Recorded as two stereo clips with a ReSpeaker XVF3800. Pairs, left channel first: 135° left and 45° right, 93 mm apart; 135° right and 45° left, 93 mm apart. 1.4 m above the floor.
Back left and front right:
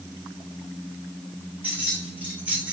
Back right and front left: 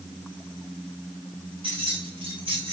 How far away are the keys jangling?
About 2.5 m.